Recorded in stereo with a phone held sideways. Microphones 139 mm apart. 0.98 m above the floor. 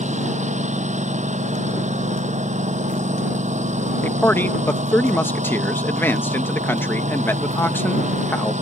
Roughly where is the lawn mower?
Right.